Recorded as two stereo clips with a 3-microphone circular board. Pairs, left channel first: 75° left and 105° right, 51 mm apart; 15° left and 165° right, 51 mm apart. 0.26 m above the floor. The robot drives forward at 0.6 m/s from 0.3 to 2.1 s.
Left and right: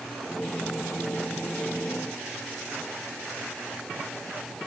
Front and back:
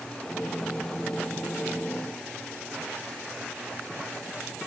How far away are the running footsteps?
I don't hear running footsteps.